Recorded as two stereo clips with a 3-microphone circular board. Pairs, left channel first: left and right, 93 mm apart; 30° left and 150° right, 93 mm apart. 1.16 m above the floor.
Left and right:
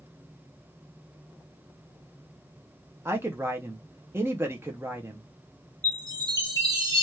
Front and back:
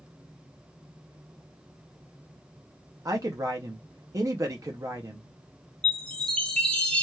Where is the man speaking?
135° right, 0.6 m.